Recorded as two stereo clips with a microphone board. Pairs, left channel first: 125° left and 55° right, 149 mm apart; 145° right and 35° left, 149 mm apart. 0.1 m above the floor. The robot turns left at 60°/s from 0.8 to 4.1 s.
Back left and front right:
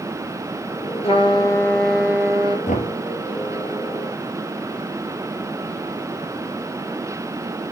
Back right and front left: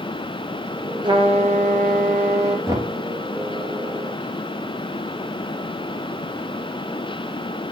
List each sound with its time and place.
1.0 s a trumpet: 85° left, 2.5 m; by 2.6 s 5° right, 2.5 m
2.7 s knocking: 105° left, 3 m; by 3.0 s 85° left, 3 m